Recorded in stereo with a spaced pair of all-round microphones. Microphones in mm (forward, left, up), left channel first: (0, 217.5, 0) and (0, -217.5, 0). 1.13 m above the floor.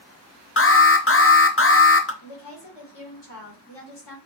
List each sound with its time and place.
0.6 s an alarm: 30° left (ahead or behind), 0.6 m
2.2 s a woman speaking: 65° left (ahead or behind), 2.5 m